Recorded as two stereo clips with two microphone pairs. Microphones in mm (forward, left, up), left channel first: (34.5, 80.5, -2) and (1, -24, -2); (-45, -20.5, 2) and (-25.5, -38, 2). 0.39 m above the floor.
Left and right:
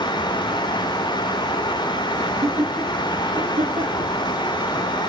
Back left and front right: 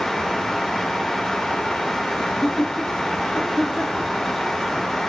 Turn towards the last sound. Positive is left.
turn(degrees=-115)